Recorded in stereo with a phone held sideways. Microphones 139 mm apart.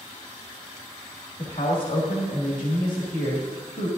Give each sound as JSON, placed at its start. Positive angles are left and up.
{"t": 1.4, "sound": "a man speaking", "side_deg": 70, "distance_m": 2.0}